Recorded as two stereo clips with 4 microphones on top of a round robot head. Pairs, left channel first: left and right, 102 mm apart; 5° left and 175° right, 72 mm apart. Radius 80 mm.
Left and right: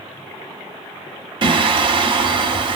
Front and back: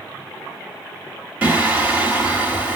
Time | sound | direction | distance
1.4 | singing | 105° right | 1.5 m